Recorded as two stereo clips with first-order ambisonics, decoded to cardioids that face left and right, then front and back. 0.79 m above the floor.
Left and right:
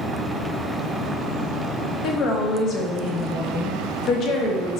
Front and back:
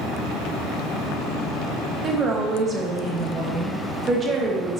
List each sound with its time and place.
2.0 s a woman speaking: 115° left, 0.5 m